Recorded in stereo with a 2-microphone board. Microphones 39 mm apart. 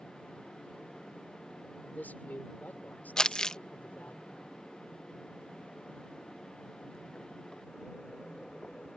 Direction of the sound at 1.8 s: 50° left (ahead or behind).